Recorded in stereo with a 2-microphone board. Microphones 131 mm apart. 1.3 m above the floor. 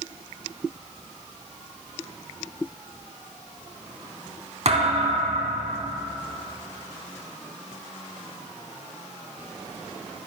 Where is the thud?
55° right (ahead or behind), 2.5 m.